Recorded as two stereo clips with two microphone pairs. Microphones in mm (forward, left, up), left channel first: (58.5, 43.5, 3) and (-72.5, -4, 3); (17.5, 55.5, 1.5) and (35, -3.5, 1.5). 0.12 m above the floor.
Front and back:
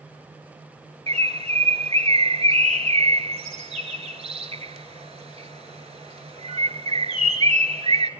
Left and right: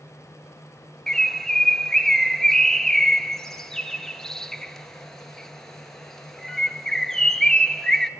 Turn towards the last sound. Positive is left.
turn(degrees=-175)